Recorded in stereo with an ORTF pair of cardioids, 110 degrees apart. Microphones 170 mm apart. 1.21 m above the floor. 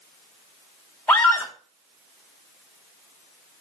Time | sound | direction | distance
1.1 | a scream | 5° left | 3.5 m